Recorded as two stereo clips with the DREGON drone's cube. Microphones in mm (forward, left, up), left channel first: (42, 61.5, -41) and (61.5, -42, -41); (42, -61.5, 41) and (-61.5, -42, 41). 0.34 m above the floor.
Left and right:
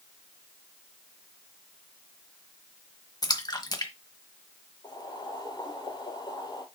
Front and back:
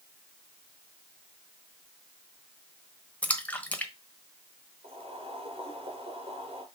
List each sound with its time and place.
3.2 s a splash: 60° left, 1.1 m
4.8 s boiling: 145° left, 3.5 m